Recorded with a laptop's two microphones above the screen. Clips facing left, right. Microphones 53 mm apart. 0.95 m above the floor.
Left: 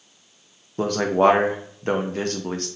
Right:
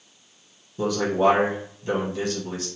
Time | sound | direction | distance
0.8 | a man speaking | 55° left (ahead or behind) | 0.6 m